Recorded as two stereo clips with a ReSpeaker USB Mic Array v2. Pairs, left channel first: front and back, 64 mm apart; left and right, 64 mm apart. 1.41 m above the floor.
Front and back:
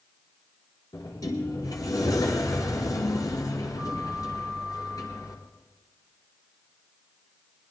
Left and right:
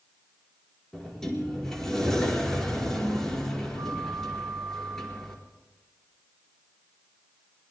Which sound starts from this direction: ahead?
A sliding door, at 0.9 s.